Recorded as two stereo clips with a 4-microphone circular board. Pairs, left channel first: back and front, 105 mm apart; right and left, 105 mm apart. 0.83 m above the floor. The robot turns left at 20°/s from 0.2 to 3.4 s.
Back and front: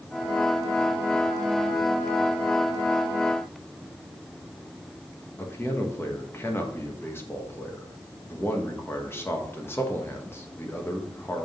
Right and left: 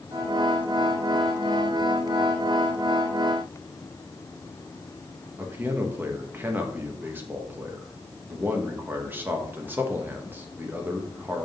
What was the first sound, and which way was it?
A man speaking, 135° left.